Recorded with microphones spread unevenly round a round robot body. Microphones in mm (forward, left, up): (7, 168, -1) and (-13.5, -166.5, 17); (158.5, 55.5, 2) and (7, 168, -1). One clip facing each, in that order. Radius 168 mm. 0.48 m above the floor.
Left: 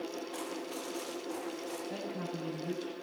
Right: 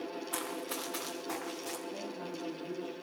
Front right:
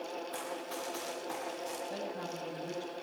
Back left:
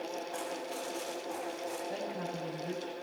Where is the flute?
No flute in this recording.